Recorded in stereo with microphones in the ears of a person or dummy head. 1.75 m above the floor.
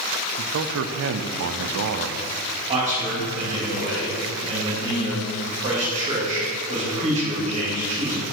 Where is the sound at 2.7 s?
25° right (ahead or behind), 3 m.